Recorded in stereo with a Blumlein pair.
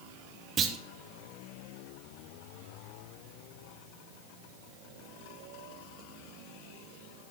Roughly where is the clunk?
Ahead right.